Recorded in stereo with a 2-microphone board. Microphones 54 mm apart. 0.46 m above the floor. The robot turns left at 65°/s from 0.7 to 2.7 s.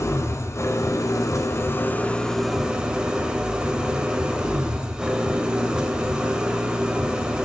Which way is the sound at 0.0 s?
110° left.